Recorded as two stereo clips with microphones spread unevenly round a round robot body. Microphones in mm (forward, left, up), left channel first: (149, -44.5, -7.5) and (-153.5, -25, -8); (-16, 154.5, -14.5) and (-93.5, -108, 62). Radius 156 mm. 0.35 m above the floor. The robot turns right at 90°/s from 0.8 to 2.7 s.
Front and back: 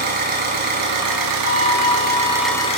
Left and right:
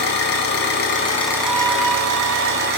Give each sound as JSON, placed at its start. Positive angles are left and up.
{"t": 0.0, "sound": "an engine running", "azimuth_deg": 115, "distance_m": 2.0}
{"t": 1.4, "sound": "a violin", "azimuth_deg": -25, "distance_m": 4.0}